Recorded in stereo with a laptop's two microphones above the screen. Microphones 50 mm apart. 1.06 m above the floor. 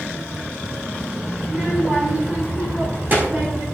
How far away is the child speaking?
About 2.5 m.